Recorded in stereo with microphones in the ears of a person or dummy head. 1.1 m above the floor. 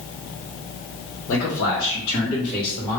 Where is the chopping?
No chopping in this recording.